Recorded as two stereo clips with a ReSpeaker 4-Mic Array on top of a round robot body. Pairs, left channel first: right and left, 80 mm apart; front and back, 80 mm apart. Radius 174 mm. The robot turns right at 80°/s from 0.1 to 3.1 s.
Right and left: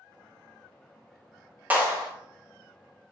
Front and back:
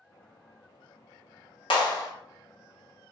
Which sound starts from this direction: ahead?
A clap, at 1.7 s.